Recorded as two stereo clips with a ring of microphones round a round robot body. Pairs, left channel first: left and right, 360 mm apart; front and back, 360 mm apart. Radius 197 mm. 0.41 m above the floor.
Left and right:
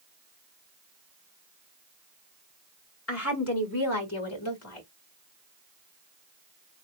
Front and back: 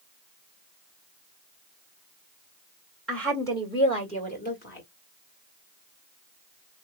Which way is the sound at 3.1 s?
85° left.